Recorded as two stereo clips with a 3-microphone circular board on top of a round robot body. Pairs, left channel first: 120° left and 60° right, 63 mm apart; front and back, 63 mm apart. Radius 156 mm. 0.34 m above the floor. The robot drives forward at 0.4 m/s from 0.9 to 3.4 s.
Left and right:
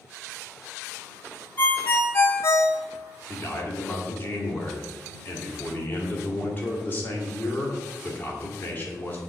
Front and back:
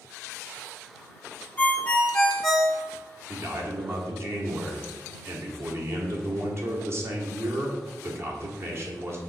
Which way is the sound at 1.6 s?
60° left.